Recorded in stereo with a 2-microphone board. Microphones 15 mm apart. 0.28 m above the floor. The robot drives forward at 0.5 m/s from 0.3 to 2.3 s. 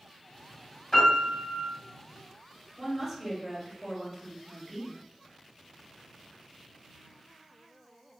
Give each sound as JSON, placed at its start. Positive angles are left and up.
{"t": 0.9, "sound": "a piano", "side_deg": 40, "distance_m": 1.7}
{"t": 2.8, "sound": "a woman speaking", "side_deg": -15, "distance_m": 1.4}